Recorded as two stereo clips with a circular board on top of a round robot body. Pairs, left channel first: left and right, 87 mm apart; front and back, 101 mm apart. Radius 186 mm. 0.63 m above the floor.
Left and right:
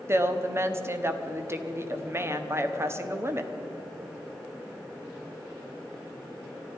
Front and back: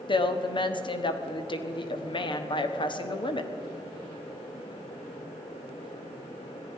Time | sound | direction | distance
0.1 | a woman speaking | 30° right | 1.4 m